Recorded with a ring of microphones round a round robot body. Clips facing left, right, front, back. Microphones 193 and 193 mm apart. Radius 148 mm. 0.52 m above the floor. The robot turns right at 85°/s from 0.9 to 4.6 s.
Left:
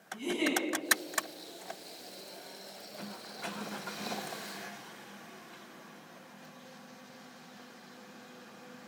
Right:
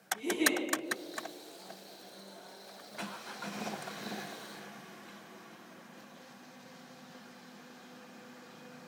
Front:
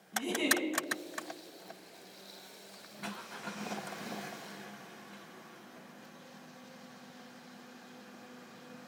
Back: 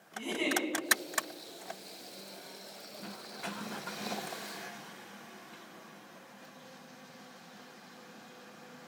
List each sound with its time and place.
0.1 s a giggle: 45° left, 4 m